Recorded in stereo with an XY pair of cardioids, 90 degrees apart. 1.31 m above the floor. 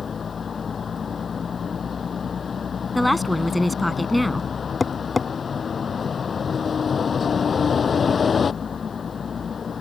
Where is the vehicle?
45° left.